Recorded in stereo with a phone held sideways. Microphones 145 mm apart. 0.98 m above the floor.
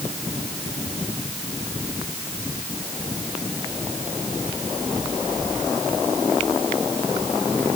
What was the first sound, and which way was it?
Only background noise.